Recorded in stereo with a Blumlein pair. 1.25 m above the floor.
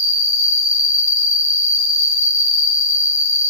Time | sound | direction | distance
0.0 | an insect | 55° left | 0.9 m